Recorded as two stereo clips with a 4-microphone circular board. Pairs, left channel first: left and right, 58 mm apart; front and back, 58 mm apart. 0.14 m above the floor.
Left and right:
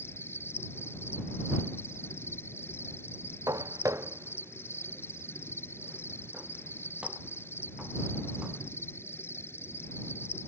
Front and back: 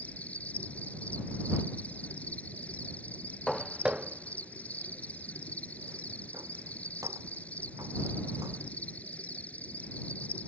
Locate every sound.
0.0 s an insect: 60° left
3.5 s footsteps: 85° right; by 8.6 s 165° right